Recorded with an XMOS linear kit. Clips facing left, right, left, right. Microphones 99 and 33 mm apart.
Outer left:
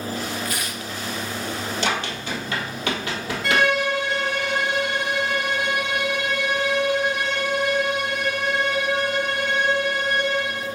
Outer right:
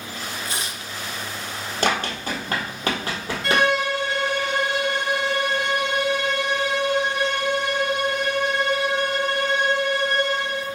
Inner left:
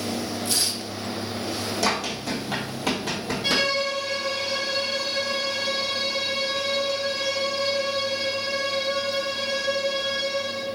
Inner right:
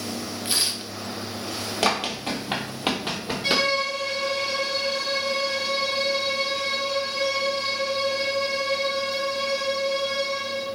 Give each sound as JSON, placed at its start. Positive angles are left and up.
{"t": 0.5, "sound": "tearing paper", "side_deg": -30, "distance_m": 0.5}
{"t": 1.8, "sound": "running footsteps", "side_deg": -50, "distance_m": 1.5}
{"t": 3.4, "sound": "a violin", "side_deg": 0, "distance_m": 1.7}